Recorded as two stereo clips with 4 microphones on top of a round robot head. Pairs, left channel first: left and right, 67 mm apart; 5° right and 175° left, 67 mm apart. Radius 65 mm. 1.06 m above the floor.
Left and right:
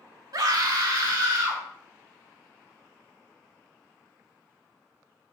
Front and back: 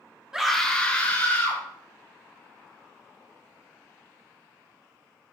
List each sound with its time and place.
0.3 s a scream: 105° right, 1.3 m; by 1.6 s 65° right, 2.5 m